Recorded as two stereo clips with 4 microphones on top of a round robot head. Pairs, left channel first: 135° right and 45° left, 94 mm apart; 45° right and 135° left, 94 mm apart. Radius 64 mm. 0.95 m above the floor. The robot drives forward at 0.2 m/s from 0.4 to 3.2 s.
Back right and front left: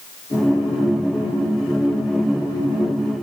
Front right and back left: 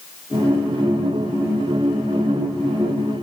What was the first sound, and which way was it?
Only background noise.